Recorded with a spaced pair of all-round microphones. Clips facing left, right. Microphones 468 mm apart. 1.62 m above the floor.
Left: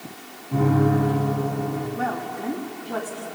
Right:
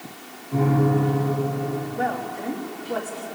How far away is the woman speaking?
About 3.5 m.